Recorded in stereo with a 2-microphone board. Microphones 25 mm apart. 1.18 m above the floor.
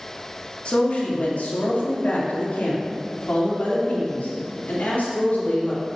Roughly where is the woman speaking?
Left.